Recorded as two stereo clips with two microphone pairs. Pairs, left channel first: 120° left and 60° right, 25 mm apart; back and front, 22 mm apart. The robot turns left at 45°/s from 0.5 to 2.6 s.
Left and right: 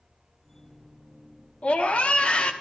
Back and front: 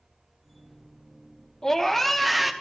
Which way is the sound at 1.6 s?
130° left.